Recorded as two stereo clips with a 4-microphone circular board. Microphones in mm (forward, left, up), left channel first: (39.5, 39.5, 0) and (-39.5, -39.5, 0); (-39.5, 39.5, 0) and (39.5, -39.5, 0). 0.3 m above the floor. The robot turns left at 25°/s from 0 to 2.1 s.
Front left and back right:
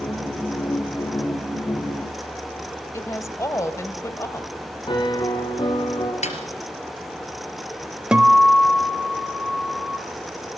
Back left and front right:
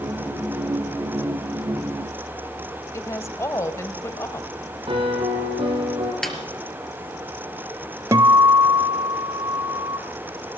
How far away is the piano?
About 3.5 m.